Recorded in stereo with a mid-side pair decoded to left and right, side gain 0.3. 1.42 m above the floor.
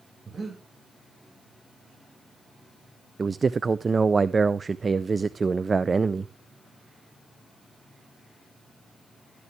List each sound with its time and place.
0.2 s breathing: 50° right, 5 m
3.2 s a man speaking: 45° right, 0.5 m